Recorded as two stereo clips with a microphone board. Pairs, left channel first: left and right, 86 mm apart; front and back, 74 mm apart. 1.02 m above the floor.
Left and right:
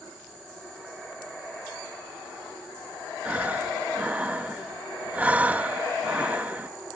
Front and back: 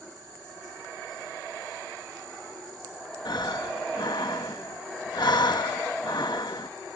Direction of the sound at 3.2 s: 20° right.